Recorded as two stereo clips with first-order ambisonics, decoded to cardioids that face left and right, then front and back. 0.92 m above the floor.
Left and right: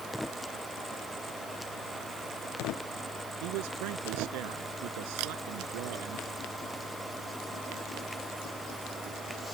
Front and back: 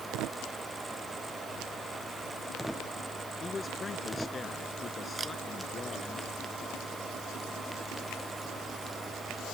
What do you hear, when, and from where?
3.4 s a man speaking: 75° right
5.2 s a camera shutter: 105° right